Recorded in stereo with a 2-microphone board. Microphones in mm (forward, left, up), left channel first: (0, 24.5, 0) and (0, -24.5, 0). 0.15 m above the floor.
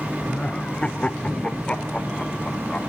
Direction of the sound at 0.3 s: 20° left (ahead or behind).